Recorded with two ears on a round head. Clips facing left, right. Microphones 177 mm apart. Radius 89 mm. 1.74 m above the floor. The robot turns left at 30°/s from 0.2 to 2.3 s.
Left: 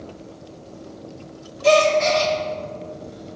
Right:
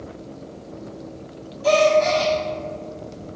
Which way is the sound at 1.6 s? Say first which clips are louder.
Even; 30° left (ahead or behind).